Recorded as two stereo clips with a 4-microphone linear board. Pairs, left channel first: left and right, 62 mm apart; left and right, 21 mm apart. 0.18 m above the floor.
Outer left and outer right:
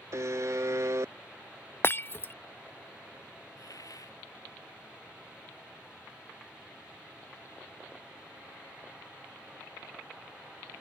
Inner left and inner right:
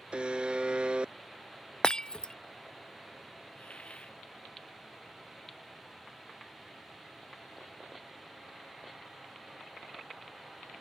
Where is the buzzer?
55° right (ahead or behind).